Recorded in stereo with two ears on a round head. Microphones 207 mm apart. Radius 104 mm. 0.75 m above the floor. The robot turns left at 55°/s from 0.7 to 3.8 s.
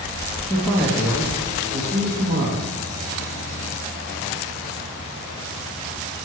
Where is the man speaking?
5° left, 1.3 m; by 2.7 s 105° right, 1.3 m.